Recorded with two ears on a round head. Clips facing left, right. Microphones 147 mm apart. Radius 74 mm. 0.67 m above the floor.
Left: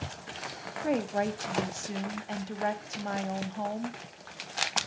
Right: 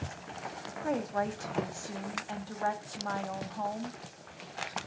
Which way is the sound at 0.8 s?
25° left (ahead or behind).